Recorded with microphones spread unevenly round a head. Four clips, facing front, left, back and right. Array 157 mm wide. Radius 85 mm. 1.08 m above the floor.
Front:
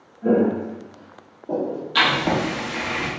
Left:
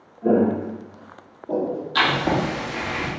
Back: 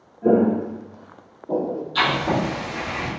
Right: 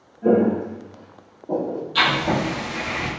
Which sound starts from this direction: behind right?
Footsteps, at 0.2 s.